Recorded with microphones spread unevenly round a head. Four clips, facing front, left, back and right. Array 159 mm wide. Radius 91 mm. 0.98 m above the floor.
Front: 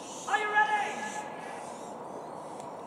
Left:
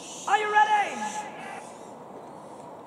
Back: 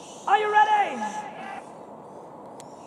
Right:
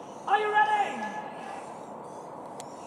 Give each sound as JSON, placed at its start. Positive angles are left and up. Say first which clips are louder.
{"t": 0.3, "sound": "a shout", "louder": "left 2 dB, back 9 dB", "azimuth_deg": 175, "distance_m": 1.3}